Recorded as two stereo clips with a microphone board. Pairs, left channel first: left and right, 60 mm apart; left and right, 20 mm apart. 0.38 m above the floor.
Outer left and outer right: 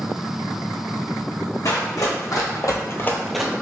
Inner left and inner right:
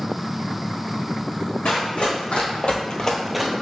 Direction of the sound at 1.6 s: 75° left (ahead or behind).